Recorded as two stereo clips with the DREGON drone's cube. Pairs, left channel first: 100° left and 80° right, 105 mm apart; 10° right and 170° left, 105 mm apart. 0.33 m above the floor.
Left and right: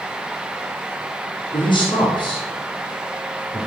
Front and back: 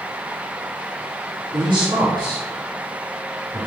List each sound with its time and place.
1.5 s a man speaking: 135° left, 3 m